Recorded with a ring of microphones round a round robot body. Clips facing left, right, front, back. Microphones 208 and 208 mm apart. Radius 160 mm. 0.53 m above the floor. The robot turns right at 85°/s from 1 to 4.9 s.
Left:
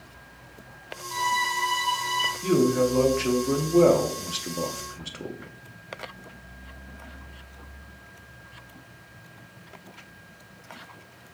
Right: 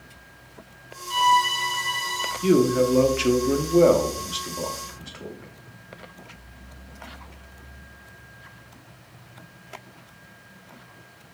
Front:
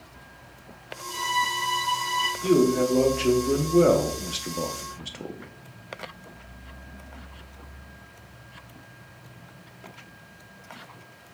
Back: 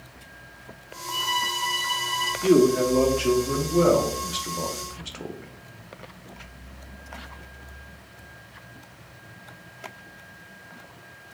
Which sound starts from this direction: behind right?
A man speaking, at 2.4 s.